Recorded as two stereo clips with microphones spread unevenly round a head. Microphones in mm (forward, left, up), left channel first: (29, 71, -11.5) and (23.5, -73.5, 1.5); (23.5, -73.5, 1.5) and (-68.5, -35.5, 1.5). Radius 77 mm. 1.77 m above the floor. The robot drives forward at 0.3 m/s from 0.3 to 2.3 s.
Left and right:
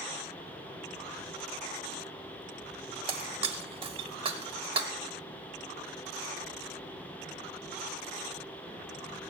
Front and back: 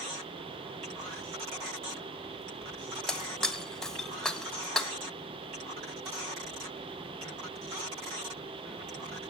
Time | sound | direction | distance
3.1 | breaking glass | 105° right | 1.2 m